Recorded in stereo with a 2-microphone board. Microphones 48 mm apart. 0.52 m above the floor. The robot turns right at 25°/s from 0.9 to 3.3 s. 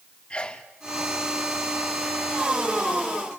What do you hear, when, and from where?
0.3 s a sneeze: 20° left (ahead or behind), 1.2 m